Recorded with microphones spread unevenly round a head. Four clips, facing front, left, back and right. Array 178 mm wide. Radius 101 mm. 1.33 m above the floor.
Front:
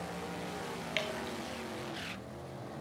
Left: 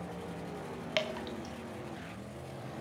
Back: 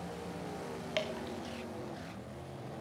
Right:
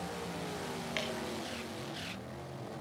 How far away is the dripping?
About 1.0 m.